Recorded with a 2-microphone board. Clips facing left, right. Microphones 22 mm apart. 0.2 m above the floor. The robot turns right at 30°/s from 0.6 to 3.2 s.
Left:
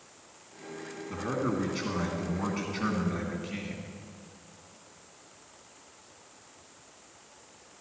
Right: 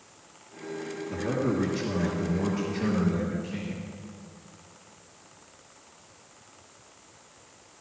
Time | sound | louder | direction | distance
1.1 | a man speaking | right 3 dB | 55° left | 1.7 m